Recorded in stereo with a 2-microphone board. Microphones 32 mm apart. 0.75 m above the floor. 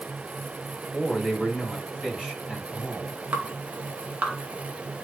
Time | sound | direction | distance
0.9 | a man speaking | centre (ahead or behind) | 4 m
3.3 | dripping | 45° right (ahead or behind) | 1.6 m